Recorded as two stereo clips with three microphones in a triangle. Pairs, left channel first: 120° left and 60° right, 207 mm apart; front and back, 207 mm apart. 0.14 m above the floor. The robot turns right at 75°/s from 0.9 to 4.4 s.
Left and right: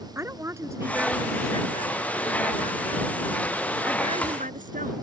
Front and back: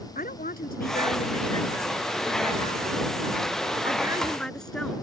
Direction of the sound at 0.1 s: 10° left.